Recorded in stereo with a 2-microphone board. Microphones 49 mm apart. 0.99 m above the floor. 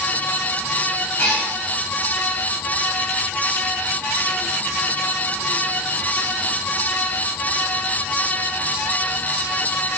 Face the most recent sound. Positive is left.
turn(degrees=45)  # may be behind; listen again after turning